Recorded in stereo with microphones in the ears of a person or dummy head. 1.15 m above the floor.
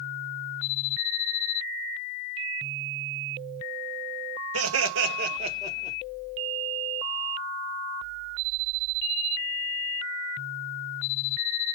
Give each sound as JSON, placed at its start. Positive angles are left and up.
{"t": 4.5, "sound": "laughter", "side_deg": -75, "distance_m": 1.2}